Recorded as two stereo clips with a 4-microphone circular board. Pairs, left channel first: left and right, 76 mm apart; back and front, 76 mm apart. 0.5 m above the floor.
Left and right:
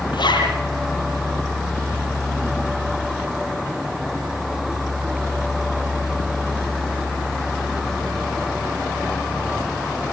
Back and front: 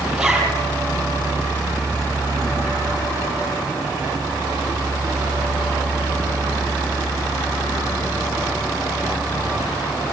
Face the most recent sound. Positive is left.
turn(degrees=80)